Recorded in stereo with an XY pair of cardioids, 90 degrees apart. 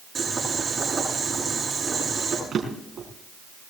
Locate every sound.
0.1 s boiling: 40° right, 10 m
2.5 s a drawer: 50° right, 5 m